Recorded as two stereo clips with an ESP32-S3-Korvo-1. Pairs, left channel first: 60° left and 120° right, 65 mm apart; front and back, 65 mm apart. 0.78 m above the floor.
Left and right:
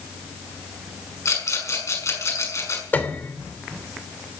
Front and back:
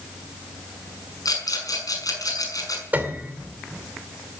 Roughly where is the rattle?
Ahead.